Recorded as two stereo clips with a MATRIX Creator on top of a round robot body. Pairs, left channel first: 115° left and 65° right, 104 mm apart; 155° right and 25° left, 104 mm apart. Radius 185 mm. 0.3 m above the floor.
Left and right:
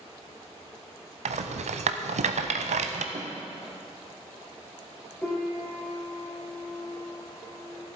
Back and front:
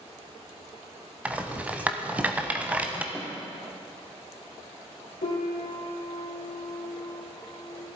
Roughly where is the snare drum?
Ahead right.